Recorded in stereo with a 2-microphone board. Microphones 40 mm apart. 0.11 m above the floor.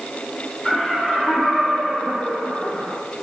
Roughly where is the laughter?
Centre.